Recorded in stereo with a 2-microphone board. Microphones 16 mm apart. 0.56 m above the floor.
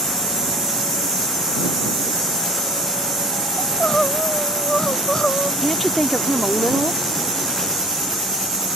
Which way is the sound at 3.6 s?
45° left (ahead or behind).